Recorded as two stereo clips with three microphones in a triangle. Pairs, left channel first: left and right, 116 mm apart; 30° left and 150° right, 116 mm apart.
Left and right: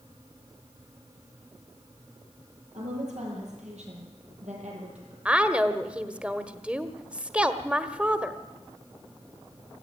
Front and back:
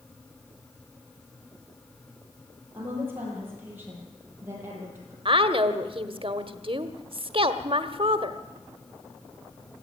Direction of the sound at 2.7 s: 75° right.